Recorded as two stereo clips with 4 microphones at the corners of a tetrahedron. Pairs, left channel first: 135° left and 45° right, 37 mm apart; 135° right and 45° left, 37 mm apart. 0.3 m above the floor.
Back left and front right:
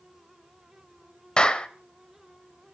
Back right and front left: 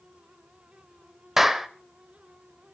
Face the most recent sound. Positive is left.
turn(degrees=120)